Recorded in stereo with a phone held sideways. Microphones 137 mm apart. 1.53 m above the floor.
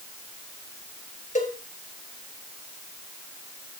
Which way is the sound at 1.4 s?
65° left (ahead or behind).